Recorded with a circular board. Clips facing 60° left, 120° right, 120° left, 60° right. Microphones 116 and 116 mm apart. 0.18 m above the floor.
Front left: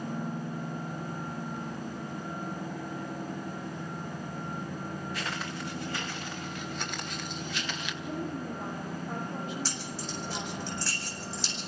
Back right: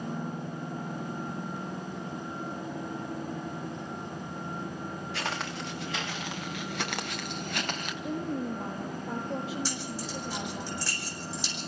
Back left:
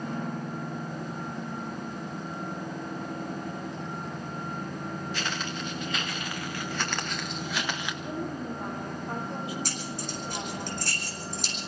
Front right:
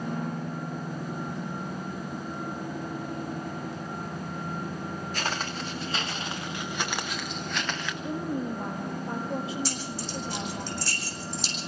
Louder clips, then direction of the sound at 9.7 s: Back right 2 dB, front right 1 dB; 160° left.